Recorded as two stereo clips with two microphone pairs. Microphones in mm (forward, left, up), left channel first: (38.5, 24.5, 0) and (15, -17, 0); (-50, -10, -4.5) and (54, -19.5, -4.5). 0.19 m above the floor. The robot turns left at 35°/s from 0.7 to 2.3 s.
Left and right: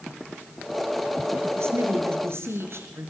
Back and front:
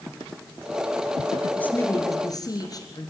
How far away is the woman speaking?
About 3.5 m.